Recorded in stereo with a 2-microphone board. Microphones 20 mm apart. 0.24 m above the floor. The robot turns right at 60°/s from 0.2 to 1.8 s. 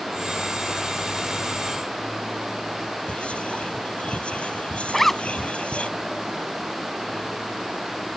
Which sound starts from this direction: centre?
A zipper, at 4.9 s.